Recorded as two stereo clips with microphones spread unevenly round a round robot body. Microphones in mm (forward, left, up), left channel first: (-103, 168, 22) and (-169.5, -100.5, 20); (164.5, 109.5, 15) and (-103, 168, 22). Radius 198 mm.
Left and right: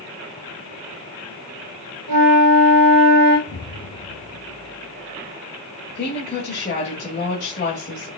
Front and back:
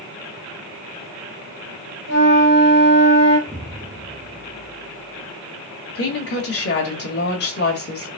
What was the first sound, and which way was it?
A flute, 65° right.